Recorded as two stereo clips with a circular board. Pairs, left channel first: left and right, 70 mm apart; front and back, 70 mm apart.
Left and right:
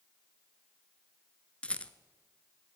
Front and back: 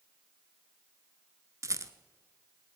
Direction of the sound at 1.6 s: 160° left.